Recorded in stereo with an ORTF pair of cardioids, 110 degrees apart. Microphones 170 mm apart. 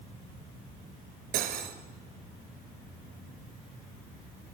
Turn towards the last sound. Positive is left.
turn(degrees=-70)